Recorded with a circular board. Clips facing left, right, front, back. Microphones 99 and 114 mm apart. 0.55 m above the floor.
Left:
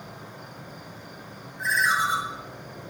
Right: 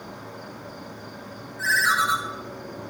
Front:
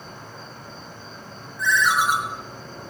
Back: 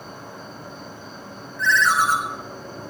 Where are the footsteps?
I don't hear footsteps.